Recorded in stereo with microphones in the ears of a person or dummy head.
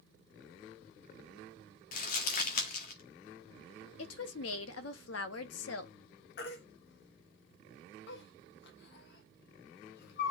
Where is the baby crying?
70° left (ahead or behind), 1.4 m.